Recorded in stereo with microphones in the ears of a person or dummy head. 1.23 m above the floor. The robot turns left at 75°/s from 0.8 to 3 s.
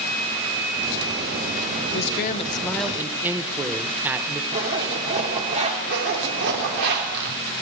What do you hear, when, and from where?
1.9 s a man speaking: 70° left, 0.8 m; by 4.4 s 10° right, 0.8 m
4.5 s a zipper: 30° right (ahead or behind), 1.9 m
5.9 s a zipper: 60° right (ahead or behind), 2.5 m